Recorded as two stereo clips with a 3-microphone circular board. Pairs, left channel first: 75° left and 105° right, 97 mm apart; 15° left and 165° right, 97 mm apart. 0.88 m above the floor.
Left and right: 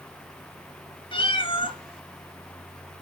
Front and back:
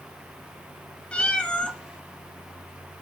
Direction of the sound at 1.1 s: 95° left.